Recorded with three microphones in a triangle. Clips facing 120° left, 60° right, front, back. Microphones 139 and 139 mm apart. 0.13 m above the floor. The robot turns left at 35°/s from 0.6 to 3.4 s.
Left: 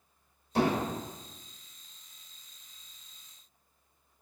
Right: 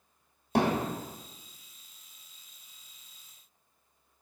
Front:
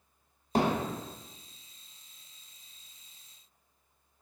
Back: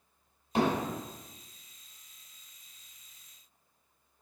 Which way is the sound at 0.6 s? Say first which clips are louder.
Right 1 dB, even; 50° right.